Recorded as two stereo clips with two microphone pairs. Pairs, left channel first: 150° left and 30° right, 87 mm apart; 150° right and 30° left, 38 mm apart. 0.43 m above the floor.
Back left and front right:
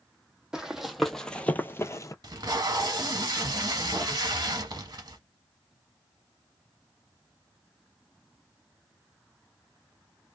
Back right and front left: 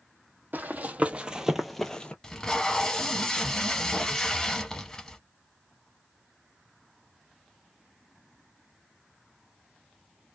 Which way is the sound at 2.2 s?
70° right.